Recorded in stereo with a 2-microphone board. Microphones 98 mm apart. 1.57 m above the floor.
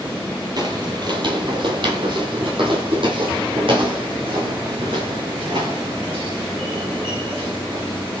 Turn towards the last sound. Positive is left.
turn(degrees=-65)  # may be behind; listen again after turning